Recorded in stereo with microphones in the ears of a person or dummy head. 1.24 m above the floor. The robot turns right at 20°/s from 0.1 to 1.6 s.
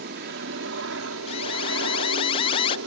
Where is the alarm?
25° left (ahead or behind).